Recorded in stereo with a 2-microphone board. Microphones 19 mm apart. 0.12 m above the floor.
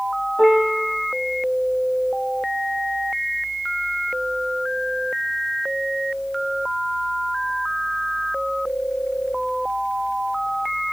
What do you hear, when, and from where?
0.4 s a piano: 40° left (ahead or behind), 2 m